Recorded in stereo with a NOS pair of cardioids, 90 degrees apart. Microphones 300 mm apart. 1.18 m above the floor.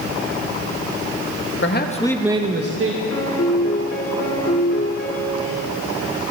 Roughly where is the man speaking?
Ahead left.